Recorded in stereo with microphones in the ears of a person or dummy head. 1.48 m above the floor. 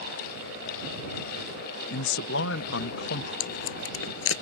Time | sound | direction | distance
1.9 | a man speaking | 65° left (ahead or behind) | ?
3.4 | tape being pulled | 80° left | ?